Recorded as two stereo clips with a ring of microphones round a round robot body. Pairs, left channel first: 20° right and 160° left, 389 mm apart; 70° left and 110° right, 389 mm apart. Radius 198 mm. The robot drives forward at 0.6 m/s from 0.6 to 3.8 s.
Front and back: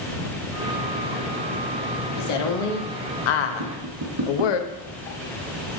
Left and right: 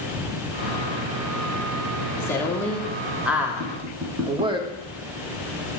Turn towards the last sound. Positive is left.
turn(degrees=-165)